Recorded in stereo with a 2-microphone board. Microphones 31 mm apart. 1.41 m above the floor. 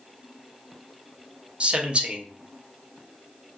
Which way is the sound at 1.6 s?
40° right (ahead or behind).